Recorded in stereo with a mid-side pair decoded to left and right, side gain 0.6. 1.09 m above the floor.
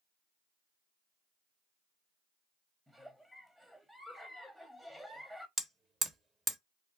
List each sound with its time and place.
2.9 s a giggle: 10° right, 1.1 m
5.6 s hammering: 25° right, 1.3 m